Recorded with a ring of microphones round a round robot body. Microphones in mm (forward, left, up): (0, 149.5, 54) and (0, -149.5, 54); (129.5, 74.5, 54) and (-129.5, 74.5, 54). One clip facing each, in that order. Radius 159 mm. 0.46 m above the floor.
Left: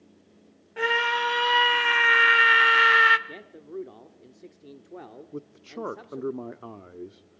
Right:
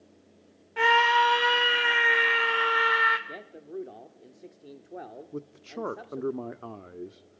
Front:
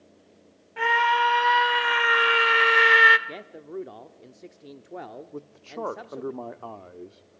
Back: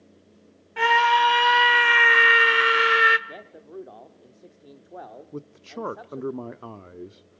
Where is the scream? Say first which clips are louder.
Right 1 dB, back 3 dB; 165° right, 1.5 m; by 3.2 s 100° left, 1.4 m.